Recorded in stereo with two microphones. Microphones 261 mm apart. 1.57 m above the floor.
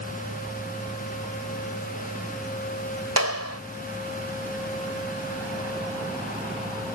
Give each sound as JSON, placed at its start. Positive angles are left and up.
{"t": 3.2, "sound": "a clap", "side_deg": -70}